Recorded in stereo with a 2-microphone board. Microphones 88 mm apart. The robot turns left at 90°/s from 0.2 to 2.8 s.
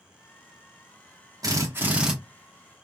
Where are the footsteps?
I don't hear footsteps.